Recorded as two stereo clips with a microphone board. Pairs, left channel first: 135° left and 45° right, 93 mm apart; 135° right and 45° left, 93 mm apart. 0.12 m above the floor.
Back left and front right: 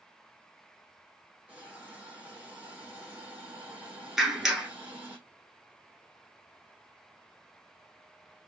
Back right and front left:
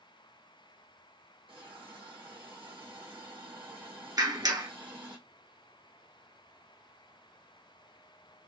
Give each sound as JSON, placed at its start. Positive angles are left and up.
{"t": 1.5, "sound": "a hiss", "azimuth_deg": 25, "distance_m": 4.0}
{"t": 4.2, "sound": "a clap", "azimuth_deg": 40, "distance_m": 1.3}